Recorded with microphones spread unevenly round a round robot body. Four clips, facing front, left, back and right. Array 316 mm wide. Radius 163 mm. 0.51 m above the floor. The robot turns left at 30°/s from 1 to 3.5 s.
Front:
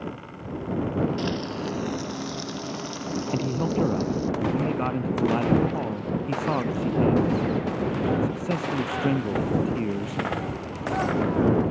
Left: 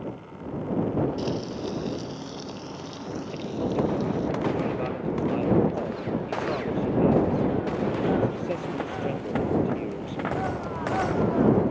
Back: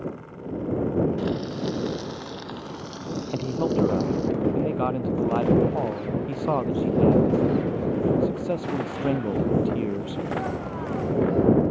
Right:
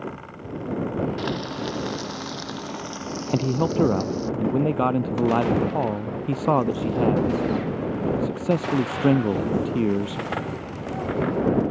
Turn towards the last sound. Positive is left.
turn(degrees=-85)